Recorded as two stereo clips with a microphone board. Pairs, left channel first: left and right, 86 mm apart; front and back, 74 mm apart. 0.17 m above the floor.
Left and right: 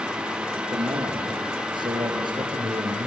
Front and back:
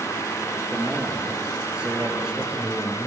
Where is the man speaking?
110° right, 3.5 m; by 3.1 s 95° right, 2.5 m.